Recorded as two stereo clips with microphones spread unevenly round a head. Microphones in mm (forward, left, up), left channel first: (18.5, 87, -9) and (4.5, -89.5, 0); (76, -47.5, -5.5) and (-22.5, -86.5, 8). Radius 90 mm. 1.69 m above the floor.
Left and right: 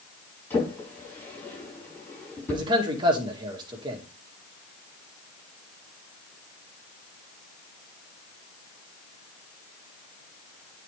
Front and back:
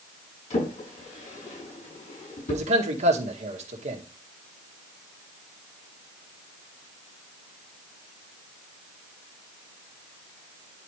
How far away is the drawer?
About 6.5 m.